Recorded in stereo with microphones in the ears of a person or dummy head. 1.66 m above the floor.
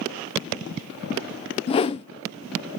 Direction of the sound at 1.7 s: 30° left (ahead or behind).